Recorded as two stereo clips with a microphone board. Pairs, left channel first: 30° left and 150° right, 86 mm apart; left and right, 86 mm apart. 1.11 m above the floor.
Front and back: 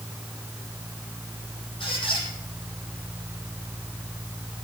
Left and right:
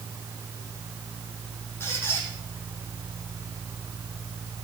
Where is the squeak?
25° left, 8 m.